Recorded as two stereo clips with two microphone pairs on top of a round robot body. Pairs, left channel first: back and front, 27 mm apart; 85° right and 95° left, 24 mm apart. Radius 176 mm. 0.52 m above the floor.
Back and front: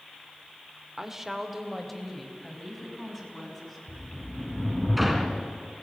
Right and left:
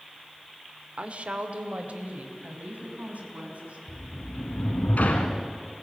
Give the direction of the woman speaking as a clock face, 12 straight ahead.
10 o'clock.